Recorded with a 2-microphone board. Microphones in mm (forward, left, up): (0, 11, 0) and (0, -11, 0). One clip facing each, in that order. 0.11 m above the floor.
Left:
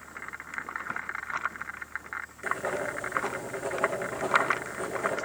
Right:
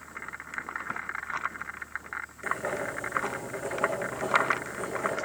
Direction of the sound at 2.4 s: 5° right (ahead or behind).